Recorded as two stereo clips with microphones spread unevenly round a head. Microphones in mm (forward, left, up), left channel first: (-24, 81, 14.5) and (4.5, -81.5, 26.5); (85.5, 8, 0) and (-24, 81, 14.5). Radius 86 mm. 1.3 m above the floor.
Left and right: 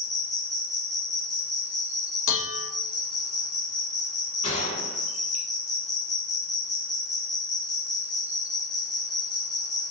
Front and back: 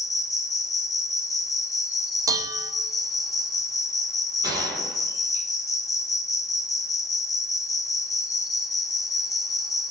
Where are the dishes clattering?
85° left, 1.0 m.